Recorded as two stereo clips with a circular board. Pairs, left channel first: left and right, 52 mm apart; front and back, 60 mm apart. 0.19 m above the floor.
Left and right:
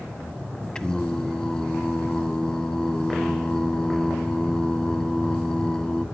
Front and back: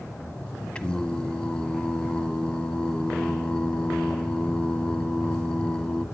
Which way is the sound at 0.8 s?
45° left.